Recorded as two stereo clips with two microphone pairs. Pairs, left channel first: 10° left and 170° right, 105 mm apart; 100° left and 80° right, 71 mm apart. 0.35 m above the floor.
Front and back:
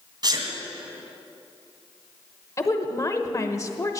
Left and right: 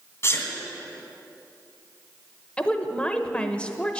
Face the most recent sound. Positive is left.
turn(degrees=35)